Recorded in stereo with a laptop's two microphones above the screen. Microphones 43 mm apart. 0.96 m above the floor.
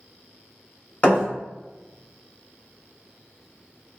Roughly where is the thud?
Left.